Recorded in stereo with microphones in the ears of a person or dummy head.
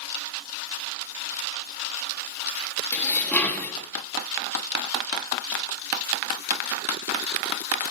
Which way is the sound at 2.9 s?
5° left (ahead or behind).